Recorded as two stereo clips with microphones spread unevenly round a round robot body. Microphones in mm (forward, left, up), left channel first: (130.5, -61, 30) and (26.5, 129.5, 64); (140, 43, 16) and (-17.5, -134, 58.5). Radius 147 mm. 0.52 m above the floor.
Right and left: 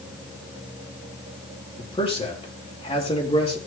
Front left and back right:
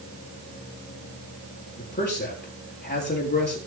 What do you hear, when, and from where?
1.8 s a man speaking: straight ahead, 9 m